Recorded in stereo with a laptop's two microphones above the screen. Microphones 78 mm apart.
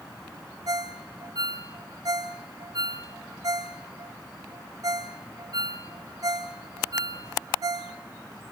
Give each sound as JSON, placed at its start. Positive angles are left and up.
{"t": 0.7, "sound": "a ringtone", "side_deg": -55, "distance_m": 1.0}